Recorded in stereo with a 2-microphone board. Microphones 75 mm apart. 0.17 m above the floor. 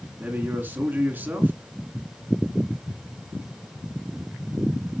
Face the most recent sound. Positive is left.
turn(degrees=-25)  # may be behind; listen again after turning